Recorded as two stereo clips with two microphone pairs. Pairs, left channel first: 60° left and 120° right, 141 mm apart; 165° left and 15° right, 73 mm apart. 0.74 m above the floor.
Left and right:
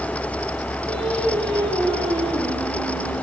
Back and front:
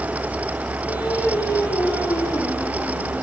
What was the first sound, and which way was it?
Singing, 175° right.